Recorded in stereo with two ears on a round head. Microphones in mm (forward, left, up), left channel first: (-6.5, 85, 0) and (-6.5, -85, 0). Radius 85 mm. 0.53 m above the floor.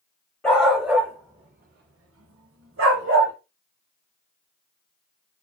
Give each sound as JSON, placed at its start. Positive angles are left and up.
{"t": 0.4, "sound": "a dog barking", "side_deg": 5, "distance_m": 0.9}